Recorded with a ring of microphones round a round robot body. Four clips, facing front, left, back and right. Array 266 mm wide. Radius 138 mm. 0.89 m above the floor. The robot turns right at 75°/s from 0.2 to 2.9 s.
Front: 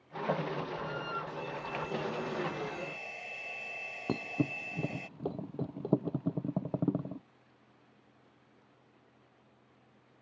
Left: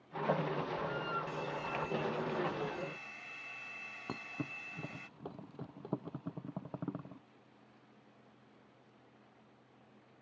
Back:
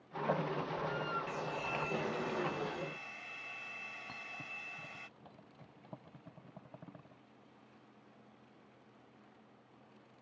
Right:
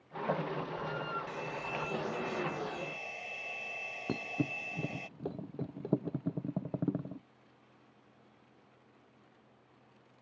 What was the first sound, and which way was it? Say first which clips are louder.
A hair dryer: even, even; 170° right.